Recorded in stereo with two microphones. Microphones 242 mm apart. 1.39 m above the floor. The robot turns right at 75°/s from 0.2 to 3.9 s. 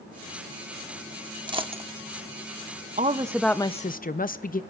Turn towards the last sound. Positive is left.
turn(degrees=35)